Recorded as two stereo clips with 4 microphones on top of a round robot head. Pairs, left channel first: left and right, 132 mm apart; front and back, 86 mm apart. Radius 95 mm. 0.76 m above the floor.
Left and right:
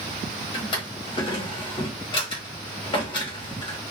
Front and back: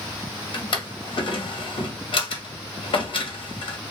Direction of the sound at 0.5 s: 30° left.